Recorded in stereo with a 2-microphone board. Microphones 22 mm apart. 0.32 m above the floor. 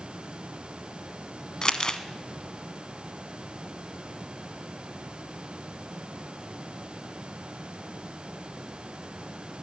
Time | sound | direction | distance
1.6 | crumpling | 35° left (ahead or behind) | 0.9 m